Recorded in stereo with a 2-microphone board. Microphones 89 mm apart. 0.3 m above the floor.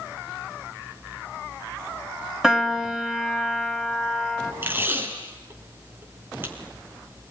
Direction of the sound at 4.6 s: 25° right (ahead or behind).